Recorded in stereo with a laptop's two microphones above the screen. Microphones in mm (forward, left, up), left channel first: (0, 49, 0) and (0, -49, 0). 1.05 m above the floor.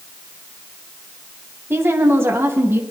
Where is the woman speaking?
25° right (ahead or behind), 1.1 m.